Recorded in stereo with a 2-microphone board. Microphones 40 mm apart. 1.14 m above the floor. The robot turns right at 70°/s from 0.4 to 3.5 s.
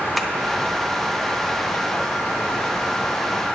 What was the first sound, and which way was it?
Tapping, centre (ahead or behind).